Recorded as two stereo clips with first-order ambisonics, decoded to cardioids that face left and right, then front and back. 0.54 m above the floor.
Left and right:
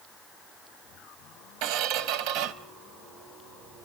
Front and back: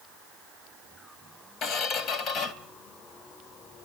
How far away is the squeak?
About 0.9 m.